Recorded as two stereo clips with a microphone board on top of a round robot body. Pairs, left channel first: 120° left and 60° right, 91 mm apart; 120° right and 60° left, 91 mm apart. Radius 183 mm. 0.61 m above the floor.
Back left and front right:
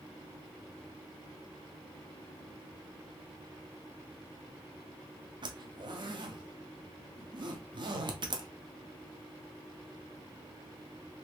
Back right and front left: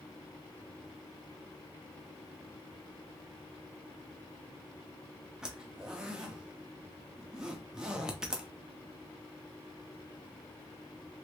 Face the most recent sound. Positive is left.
turn(degrees=-25)